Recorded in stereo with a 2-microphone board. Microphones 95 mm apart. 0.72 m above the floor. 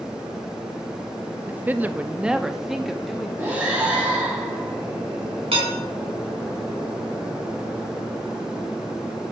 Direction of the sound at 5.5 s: 85° right.